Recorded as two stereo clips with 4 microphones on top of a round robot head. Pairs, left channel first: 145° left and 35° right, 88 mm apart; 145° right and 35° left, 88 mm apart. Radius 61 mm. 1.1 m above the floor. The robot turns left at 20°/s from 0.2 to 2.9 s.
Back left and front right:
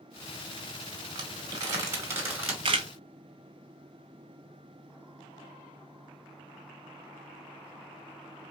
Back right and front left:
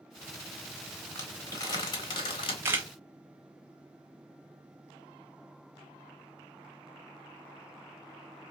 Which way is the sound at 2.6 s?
25° right.